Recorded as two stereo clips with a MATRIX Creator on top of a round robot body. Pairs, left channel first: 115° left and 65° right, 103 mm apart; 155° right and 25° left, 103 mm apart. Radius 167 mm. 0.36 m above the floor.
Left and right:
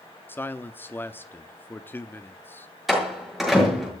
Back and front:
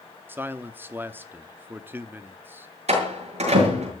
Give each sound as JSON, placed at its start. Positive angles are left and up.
{"t": 0.3, "sound": "a man speaking", "azimuth_deg": 65, "distance_m": 1.1}
{"t": 2.9, "sound": "a door slam", "azimuth_deg": 20, "distance_m": 7.5}